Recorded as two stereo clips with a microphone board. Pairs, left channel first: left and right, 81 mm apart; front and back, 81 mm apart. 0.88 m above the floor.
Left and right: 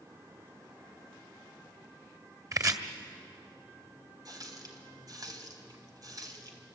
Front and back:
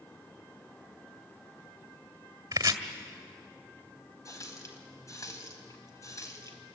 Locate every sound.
2.5 s chopping: 135° right, 1.8 m
4.2 s a running tap: 50° right, 3.5 m